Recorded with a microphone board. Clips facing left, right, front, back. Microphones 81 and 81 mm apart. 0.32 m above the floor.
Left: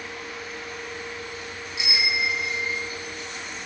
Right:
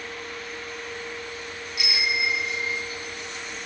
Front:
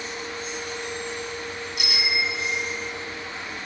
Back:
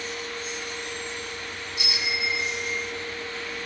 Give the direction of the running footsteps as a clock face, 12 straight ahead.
No running footsteps in this recording.